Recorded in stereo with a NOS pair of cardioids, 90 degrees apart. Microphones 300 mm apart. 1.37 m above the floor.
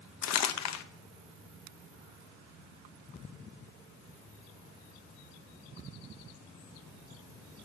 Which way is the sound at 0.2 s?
65° left.